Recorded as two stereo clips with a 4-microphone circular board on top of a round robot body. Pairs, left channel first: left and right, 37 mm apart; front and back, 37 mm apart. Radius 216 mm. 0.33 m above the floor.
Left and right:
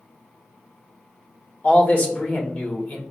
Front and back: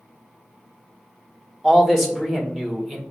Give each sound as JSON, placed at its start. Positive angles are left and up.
{"t": 1.6, "sound": "a man speaking", "azimuth_deg": 95, "distance_m": 1.7}